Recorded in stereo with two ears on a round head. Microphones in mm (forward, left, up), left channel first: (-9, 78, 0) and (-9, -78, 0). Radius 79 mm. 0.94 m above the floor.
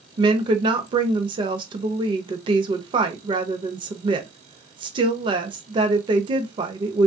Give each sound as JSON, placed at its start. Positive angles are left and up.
{"t": 0.2, "sound": "a woman speaking", "side_deg": -25, "distance_m": 0.6}